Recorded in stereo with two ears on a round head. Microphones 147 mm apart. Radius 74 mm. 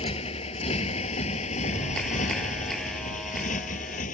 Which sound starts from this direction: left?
A motorcycle, at 0.0 s.